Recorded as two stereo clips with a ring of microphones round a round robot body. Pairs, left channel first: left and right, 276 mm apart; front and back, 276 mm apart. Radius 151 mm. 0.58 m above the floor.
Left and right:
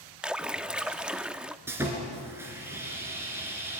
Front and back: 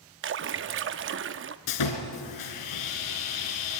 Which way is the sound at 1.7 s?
5° right.